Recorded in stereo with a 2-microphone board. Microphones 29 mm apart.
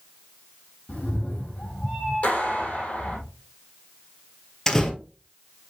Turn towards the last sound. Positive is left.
turn(degrees=15)  # may be behind; listen again after turning